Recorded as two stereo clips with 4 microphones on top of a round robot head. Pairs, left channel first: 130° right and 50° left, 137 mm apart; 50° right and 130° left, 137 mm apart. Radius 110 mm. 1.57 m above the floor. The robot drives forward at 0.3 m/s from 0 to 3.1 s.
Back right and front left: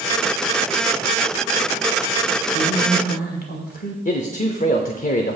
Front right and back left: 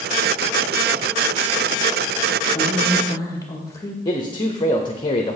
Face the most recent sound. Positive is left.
turn(degrees=-105)